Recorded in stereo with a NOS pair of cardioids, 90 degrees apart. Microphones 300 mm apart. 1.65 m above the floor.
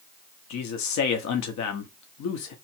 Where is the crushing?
No crushing in this recording.